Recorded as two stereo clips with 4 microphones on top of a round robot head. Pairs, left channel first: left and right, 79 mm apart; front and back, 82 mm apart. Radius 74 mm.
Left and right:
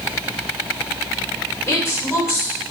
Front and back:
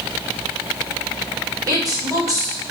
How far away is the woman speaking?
About 1.7 m.